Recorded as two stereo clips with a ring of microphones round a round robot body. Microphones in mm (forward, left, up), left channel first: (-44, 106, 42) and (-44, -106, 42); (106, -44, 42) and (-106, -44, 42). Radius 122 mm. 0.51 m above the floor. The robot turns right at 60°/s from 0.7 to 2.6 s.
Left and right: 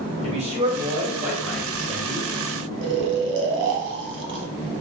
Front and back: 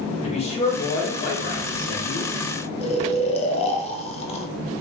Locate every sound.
0.2 s a man speaking: 45° right, 1.5 m; by 2.3 s 55° left, 1.5 m
2.8 s snoring: 60° right, 0.6 m